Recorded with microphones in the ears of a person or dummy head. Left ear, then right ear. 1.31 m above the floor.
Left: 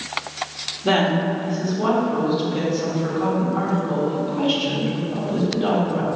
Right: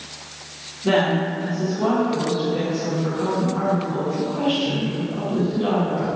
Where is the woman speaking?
10° left (ahead or behind), 1.2 m.